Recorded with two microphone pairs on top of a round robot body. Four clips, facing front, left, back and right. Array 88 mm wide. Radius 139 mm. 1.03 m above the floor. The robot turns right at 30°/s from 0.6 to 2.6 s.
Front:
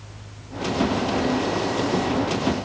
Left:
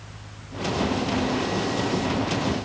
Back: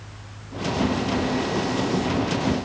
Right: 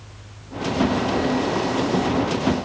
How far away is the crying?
I don't hear crying.